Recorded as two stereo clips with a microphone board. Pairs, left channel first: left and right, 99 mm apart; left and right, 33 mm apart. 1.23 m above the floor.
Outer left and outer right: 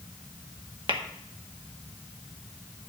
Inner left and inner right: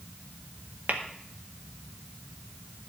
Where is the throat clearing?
I don't hear throat clearing.